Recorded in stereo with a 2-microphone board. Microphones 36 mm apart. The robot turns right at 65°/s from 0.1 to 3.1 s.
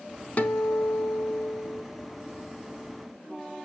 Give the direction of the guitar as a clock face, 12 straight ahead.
10 o'clock.